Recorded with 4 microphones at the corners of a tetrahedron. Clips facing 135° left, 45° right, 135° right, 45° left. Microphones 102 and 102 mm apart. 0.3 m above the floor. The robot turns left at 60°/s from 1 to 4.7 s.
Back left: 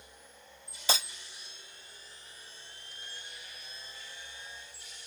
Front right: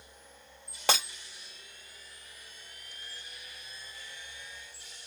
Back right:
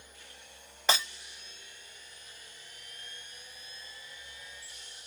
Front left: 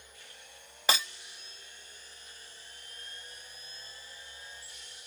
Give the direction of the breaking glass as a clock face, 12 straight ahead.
1 o'clock.